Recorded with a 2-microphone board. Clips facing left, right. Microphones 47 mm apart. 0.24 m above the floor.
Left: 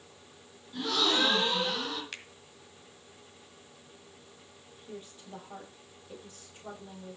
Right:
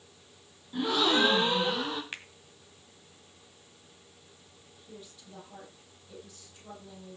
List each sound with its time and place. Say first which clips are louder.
0.7 s a gasp: right 3 dB; 20° right (ahead or behind), 3 m
2.1 s a finger snap: right 2 dB; 20° right (ahead or behind), 1.6 m
4.8 s a woman speaking: left 4 dB; 35° left (ahead or behind), 8 m